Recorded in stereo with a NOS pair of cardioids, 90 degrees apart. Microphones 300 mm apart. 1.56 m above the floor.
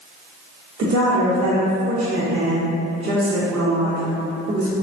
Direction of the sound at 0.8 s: 55° right.